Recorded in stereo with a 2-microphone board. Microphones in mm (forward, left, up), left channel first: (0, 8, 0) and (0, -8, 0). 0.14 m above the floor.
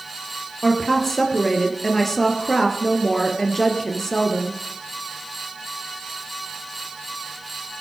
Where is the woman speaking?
15° left (ahead or behind), 3 m.